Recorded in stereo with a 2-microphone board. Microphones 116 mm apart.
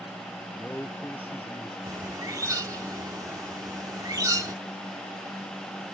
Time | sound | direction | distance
0.5 | a man speaking | 15° left (ahead or behind) | ?
1.9 | a bird | 30° right (ahead or behind) | ?